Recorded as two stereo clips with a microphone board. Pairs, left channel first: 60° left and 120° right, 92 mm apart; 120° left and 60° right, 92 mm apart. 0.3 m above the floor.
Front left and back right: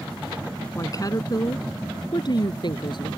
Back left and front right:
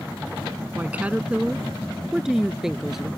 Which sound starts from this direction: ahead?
A woman speaking, at 0.8 s.